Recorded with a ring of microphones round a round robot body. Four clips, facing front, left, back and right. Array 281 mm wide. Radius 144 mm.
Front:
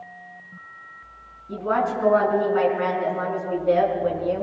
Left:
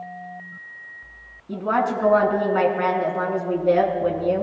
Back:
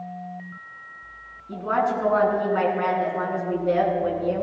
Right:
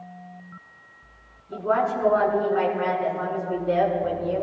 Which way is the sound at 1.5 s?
90° left.